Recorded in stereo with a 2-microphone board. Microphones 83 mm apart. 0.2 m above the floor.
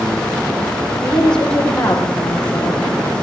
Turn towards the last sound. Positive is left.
turn(degrees=10)  # may be behind; listen again after turning